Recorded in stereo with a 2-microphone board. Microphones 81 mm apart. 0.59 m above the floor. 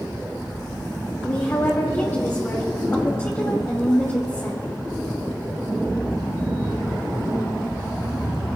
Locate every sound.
1.2 s a woman speaking: 35° left (ahead or behind), 1.7 m